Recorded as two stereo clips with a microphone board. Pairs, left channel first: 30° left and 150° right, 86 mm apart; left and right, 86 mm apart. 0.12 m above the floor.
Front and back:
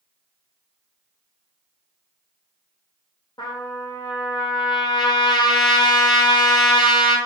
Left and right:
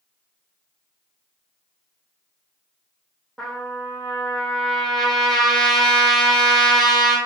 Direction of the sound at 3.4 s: 5° left.